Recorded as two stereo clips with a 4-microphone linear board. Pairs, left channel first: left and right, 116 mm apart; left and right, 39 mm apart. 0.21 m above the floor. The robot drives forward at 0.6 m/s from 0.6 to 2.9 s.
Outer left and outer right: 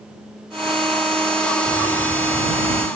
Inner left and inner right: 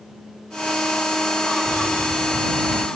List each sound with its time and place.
1.6 s a bird: 15° left (ahead or behind), 1.1 m; by 2.9 s 30° left (ahead or behind), 0.7 m